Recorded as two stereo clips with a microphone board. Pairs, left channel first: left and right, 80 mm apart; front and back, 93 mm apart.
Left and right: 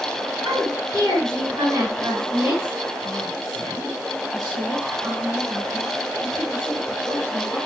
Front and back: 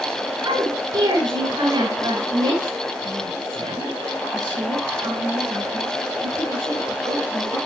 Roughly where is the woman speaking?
Behind right.